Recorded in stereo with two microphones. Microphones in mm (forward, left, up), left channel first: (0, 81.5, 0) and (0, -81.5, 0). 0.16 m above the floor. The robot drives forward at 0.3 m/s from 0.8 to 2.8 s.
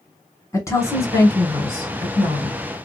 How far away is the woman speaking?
About 1.2 m.